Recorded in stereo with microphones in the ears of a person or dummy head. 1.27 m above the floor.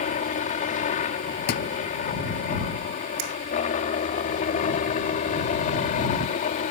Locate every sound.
0.0 s a helicopter: 35° left (ahead or behind)
1.5 s a thud: 50° left (ahead or behind)
3.2 s a finger snap: 75° right (ahead or behind)